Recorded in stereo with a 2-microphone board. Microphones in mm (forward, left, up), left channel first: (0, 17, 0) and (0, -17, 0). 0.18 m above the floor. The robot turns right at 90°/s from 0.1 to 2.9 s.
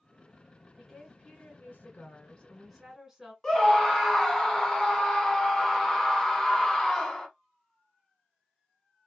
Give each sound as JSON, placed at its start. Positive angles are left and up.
{"t": 0.8, "sound": "a woman speaking", "azimuth_deg": 0, "distance_m": 2.0}
{"t": 3.4, "sound": "a scream", "side_deg": 20, "distance_m": 1.0}